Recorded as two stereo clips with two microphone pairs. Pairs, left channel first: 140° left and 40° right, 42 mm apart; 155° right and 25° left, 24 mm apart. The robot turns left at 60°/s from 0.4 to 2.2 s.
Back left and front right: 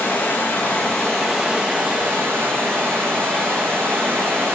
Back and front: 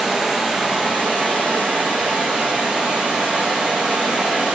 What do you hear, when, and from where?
0.0 s running water: 95° left, 2 m; by 4.5 s 15° right, 2 m